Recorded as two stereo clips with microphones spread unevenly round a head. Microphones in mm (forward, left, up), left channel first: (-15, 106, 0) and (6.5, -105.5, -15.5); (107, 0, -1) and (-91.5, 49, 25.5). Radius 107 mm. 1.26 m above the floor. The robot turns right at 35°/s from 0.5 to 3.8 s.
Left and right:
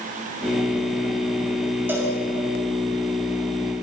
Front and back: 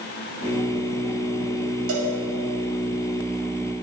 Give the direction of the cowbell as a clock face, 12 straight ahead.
6 o'clock.